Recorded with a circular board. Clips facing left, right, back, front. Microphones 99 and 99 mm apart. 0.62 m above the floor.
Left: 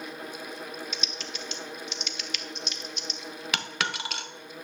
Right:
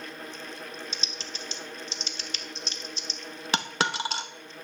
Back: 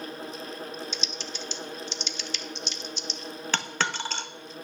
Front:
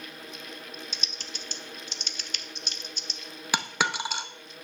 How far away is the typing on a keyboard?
About 0.7 m.